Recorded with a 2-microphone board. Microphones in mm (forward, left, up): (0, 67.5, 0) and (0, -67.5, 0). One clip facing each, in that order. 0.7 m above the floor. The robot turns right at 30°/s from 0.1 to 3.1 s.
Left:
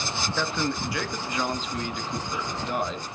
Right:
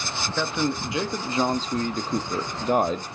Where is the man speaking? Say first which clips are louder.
Right 3 dB; 165° right, 0.6 m; by 3.0 s 85° right, 0.6 m.